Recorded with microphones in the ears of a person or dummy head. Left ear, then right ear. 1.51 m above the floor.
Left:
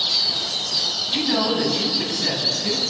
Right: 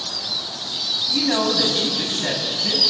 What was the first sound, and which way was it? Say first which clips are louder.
A woman speaking: right 3 dB; 35° right (ahead or behind).